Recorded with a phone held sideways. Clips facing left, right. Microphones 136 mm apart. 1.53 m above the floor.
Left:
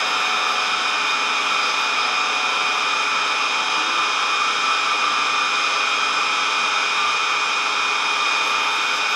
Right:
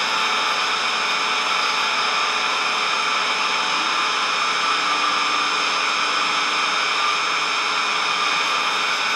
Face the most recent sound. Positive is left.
turn(degrees=-85)